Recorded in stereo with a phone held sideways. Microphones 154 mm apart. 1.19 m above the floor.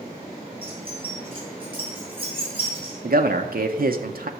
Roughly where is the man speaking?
Right.